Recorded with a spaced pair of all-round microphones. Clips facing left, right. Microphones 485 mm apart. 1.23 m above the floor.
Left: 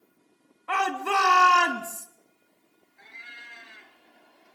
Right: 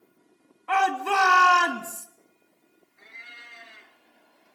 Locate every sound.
0.7 s a shout: centre (ahead or behind), 2.5 m
3.0 s a cat meowing: 10° left (ahead or behind), 1.8 m